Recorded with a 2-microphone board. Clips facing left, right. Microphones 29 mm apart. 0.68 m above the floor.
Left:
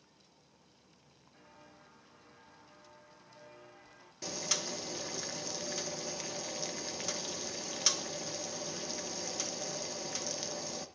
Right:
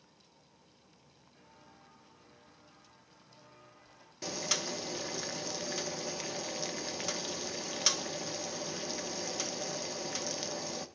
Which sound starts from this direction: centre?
Boiling, at 4.2 s.